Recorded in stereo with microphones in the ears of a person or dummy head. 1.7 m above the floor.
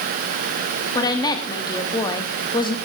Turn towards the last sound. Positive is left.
turn(degrees=25)  # may be behind; listen again after turning